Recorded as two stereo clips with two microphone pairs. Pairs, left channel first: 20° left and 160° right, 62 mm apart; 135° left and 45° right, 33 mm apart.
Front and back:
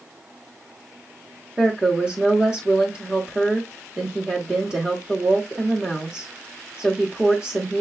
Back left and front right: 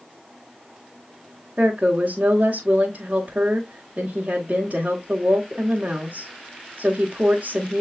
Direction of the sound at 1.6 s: 90° right.